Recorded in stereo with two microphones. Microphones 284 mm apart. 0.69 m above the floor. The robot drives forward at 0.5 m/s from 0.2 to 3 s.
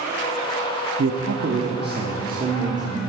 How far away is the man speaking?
About 0.7 m.